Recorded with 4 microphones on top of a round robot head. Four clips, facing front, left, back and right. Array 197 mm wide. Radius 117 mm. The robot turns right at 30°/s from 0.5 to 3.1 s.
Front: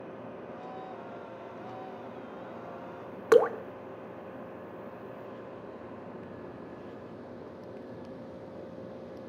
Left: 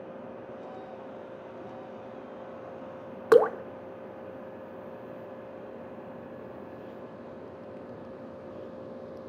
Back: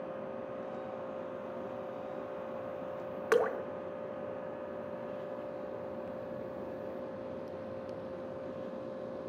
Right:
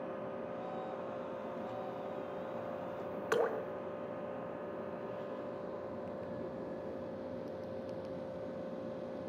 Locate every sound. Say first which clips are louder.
3.3 s dripping: left 14 dB, front 7 dB; 60° left, 0.6 m